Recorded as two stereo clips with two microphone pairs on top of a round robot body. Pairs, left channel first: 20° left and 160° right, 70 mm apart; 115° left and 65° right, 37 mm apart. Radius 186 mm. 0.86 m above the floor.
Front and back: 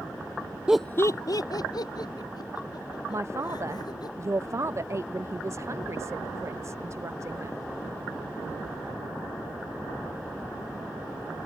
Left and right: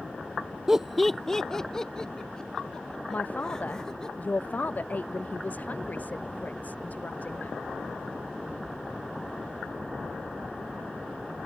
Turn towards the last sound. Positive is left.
turn(degrees=155)